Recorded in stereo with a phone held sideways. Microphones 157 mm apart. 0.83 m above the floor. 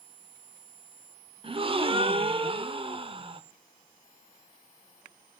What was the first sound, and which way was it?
A gasp, 35° right (ahead or behind).